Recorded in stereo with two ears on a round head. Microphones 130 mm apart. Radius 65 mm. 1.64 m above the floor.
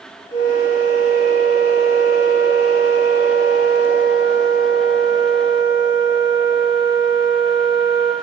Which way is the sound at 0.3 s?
25° left (ahead or behind).